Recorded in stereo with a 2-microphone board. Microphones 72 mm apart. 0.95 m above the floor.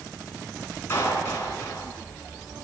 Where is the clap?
30° left (ahead or behind), 7.5 m.